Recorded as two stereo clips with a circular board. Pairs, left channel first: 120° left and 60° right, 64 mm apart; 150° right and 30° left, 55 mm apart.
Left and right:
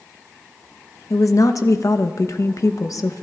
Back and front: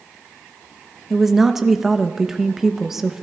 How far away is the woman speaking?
About 0.8 m.